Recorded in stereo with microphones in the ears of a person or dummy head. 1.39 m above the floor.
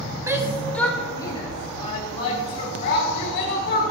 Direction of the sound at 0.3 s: 20° right (ahead or behind).